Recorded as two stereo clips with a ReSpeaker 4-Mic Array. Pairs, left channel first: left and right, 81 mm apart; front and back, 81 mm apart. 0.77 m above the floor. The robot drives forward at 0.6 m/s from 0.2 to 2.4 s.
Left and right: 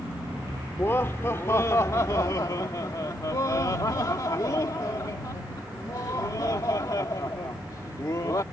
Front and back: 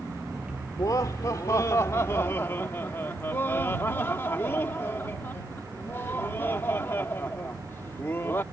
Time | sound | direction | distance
0.7 | laughter | 35° left | ?